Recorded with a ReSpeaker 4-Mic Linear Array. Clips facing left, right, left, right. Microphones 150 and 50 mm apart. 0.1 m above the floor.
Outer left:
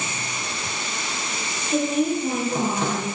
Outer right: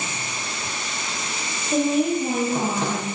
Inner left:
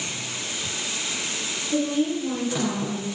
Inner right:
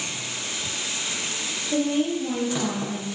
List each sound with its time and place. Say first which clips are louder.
1.7 s a woman speaking: outer right 1 dB, even; 45° right (ahead or behind), 2.5 m